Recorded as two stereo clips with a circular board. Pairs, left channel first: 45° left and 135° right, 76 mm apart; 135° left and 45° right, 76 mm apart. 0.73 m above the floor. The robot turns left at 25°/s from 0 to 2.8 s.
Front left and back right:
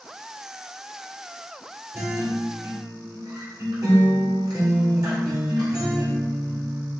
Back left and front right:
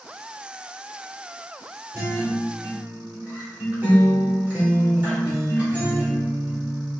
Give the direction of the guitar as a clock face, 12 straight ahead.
3 o'clock.